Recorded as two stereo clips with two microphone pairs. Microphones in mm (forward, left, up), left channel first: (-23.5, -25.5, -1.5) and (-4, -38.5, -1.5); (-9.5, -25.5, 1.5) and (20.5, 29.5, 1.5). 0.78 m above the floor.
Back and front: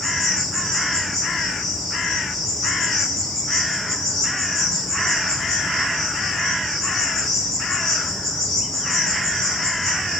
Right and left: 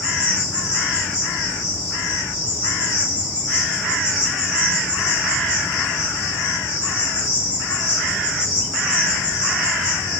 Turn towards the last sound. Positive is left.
turn(degrees=70)